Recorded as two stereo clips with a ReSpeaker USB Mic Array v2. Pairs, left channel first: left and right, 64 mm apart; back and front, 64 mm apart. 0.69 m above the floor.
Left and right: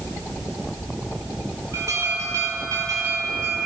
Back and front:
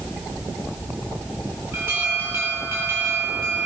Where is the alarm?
50° right, 10 m.